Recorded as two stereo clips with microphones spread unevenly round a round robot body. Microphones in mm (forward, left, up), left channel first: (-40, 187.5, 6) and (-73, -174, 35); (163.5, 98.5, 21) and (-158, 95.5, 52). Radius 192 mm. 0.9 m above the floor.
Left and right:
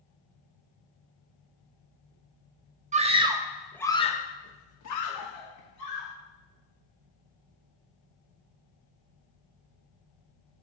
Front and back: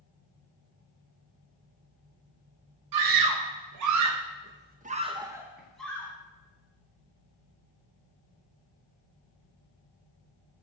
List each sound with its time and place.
2.9 s a scream: 165° right, 1.1 m; by 6.1 s 80° left, 1.4 m